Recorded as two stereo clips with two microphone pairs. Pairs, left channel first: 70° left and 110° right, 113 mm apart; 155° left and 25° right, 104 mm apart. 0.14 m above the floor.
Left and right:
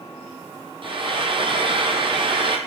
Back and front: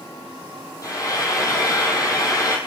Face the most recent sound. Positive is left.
turn(degrees=-150)